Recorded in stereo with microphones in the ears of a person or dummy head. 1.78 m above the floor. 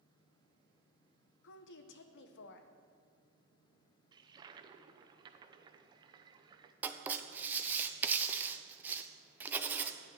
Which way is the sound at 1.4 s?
65° left (ahead or behind).